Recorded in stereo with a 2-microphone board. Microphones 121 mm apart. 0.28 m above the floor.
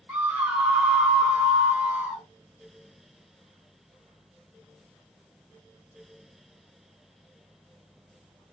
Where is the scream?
15° right (ahead or behind), 1.0 m.